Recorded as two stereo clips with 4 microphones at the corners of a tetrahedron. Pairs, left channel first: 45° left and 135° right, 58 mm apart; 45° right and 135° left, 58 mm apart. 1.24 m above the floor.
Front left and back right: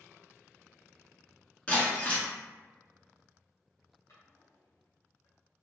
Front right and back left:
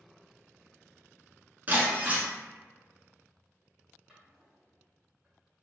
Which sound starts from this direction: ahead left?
A drawer, at 4.1 s.